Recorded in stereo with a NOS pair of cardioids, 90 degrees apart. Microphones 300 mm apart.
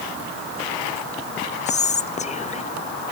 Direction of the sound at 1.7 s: 25° left.